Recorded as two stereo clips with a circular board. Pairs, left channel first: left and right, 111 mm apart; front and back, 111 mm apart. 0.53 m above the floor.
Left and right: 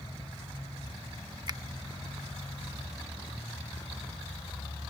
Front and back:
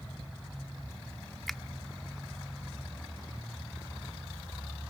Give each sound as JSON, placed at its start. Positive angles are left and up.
{"t": 1.5, "sound": "a finger snap", "azimuth_deg": -85}